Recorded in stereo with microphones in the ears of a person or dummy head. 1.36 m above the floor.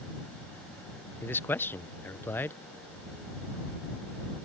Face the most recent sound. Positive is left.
turn(degrees=10)  # may be behind; listen again after turning